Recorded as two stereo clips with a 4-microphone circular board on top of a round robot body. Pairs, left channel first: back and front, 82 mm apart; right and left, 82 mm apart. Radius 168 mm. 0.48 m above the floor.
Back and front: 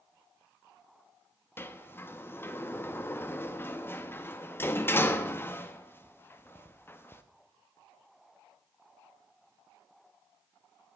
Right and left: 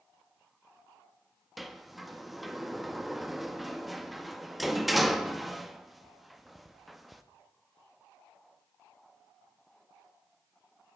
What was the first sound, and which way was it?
A sliding door, straight behind.